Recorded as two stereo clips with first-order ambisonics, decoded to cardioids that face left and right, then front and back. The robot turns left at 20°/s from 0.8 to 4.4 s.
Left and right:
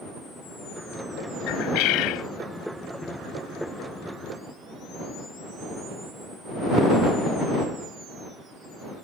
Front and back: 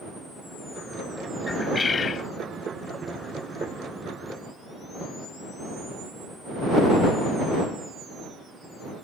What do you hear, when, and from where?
1.5 s a bird: 80° left; by 2.3 s 65° left